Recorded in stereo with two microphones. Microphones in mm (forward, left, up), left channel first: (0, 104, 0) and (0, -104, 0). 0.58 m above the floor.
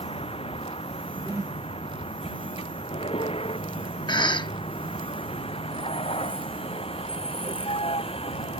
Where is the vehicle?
30° left (ahead or behind).